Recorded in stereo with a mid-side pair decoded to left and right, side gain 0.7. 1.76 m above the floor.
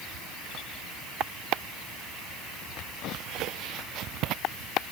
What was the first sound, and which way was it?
Only background noise.